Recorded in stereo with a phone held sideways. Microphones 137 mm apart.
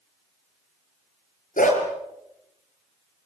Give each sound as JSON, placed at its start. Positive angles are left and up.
{"t": 1.6, "sound": "a dog barking", "side_deg": 75, "distance_m": 6.0}